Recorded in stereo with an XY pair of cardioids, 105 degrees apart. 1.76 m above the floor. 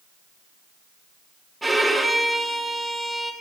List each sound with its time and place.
1.6 s a violin: 10° right, 1.7 m